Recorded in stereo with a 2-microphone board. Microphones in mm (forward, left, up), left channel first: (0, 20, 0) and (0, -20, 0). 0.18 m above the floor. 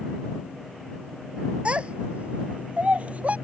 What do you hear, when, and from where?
1.6 s a child speaking: 30° right (ahead or behind); by 3.4 s 40° right (ahead or behind)